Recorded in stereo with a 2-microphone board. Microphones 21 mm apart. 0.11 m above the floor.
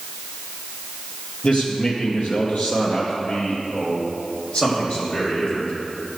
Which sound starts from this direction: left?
A man speaking, at 1.4 s.